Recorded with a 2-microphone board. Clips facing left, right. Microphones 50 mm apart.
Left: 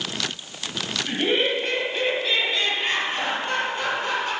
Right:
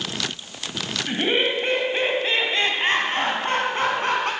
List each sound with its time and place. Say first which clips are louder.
1.1 s laughter: right 1 dB; 15° right (ahead or behind), 1.8 m; by 4.3 s 55° right (ahead or behind), 3 m